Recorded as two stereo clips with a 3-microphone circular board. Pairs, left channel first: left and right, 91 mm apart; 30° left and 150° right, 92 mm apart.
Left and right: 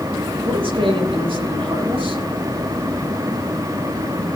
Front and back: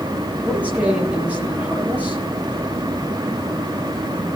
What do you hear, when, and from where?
0.4 s a man speaking: 75° right, 7 m